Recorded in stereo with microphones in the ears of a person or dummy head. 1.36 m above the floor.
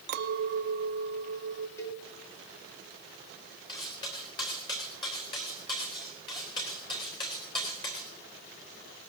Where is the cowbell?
20° left (ahead or behind), 1.6 m.